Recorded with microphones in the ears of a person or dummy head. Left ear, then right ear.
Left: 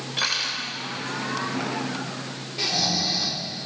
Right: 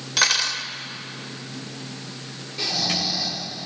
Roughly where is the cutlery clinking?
Right.